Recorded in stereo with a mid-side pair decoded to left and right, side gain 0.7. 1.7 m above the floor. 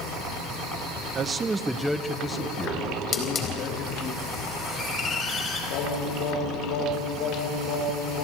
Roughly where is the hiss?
Ahead left.